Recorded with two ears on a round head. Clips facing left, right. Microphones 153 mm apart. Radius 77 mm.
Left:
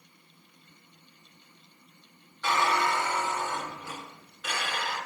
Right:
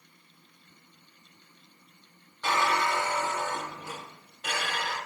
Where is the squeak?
25° right (ahead or behind), 2 m.